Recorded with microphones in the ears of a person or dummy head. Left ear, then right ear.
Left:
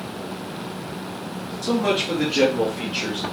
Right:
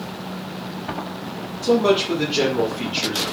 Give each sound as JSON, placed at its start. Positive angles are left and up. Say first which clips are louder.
{"t": 1.6, "sound": "a man speaking", "louder": "right 5 dB", "side_deg": 45, "distance_m": 2.0}